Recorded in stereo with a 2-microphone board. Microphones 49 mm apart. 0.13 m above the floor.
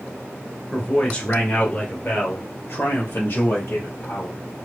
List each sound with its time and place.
0.7 s a man speaking: 10° left (ahead or behind), 1.6 m; by 4.4 s 60° left (ahead or behind), 4 m